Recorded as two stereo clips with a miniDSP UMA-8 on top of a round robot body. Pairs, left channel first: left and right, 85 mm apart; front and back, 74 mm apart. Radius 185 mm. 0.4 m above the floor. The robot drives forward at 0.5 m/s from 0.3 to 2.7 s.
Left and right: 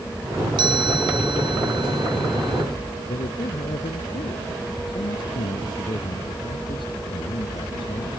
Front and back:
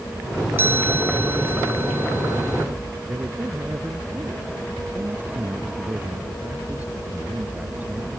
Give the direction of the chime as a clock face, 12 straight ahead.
4 o'clock.